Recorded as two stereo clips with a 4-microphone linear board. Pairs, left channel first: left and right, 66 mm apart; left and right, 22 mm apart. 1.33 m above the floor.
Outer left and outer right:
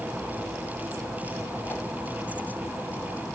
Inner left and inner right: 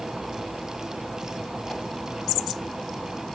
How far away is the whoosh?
About 0.8 m.